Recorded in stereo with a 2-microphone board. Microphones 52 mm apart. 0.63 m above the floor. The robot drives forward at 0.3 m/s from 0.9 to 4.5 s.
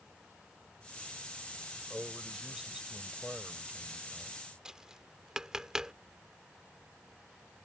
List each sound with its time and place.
1.9 s a man speaking: 15° right (ahead or behind); by 4.4 s 10° right (ahead or behind)
4.7 s tapping: 10° right (ahead or behind)